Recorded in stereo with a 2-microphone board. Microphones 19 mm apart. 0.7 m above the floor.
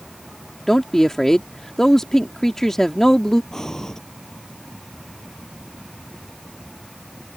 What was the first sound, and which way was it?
A woman speaking, 20° left (ahead or behind).